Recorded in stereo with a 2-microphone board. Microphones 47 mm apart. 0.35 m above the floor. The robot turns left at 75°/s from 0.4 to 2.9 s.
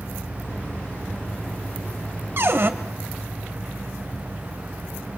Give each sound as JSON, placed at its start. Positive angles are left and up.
{"t": 2.4, "sound": "a cupboard door", "side_deg": -55, "distance_m": 1.2}